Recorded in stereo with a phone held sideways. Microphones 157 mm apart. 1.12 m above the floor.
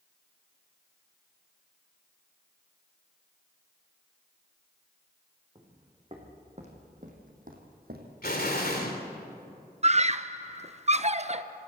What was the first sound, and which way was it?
Footsteps, 30° right (ahead or behind).